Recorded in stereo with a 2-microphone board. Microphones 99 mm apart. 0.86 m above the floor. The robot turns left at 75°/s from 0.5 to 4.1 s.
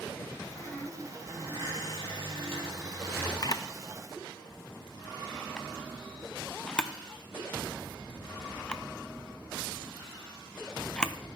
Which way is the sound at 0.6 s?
45° left.